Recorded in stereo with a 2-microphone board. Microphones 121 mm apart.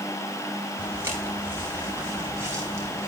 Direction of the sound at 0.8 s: 15° right (ahead or behind).